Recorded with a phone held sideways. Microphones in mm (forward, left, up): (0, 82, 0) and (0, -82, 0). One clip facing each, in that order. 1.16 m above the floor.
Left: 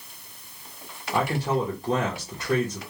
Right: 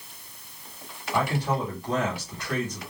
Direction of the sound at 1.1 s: 40° left (ahead or behind).